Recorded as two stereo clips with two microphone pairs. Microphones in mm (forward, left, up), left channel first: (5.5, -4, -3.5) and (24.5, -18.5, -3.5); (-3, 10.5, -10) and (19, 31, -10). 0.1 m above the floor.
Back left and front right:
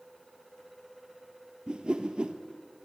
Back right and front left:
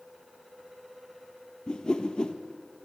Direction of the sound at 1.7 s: 75° right.